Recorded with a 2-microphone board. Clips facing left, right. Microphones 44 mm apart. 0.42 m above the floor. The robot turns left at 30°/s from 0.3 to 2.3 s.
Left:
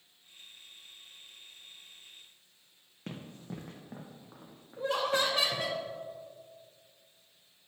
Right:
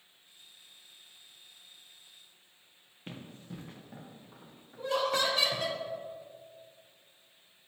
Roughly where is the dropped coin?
I don't hear a dropped coin.